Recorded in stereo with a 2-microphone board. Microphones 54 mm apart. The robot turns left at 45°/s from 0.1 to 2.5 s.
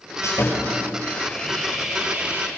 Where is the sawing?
65° left, 6.5 m; by 2.5 s 40° right, 6.5 m.